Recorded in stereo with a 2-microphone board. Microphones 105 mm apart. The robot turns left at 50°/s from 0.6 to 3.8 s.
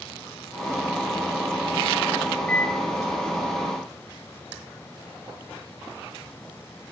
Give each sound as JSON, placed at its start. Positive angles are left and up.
{"t": 2.5, "sound": "a microwave", "side_deg": 10, "distance_m": 1.2}